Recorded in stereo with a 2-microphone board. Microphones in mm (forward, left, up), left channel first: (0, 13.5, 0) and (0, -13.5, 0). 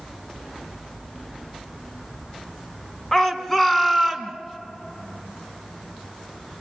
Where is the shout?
25° left (ahead or behind), 1.9 m; by 4.3 s 5° left (ahead or behind), 1.7 m.